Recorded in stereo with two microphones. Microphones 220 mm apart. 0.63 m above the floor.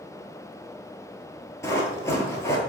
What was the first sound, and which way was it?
Running footsteps, 15° left (ahead or behind).